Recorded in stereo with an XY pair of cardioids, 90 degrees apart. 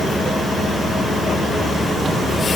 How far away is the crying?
I don't hear crying.